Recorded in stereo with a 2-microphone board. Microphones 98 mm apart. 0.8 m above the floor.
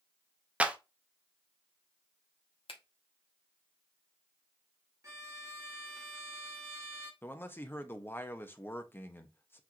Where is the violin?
35° right (ahead or behind), 1.1 m.